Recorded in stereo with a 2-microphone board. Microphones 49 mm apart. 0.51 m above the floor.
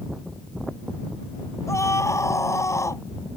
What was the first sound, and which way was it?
A scream, 75° left (ahead or behind).